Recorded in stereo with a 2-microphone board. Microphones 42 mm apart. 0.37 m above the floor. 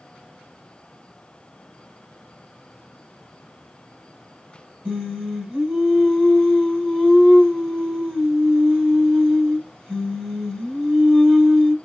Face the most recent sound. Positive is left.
turn(degrees=-30)  # may be behind; listen again after turning